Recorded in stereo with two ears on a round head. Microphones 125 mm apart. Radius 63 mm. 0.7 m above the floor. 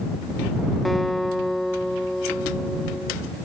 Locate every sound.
0.8 s a guitar: centre (ahead or behind)